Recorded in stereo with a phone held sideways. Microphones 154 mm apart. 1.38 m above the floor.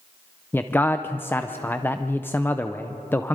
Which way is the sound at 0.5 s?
15° left (ahead or behind).